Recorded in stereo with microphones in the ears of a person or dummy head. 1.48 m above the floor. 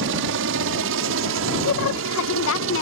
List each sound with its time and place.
0.0 s a helicopter: 65° right (ahead or behind); by 2.8 s 70° right (ahead or behind)
1.6 s a woman speaking: 70° left (ahead or behind)